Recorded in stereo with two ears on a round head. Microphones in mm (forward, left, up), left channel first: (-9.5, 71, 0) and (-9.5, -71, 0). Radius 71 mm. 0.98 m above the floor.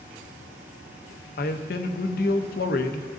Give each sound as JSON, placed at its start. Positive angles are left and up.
{"t": 1.4, "sound": "a man speaking", "side_deg": 60, "distance_m": 0.7}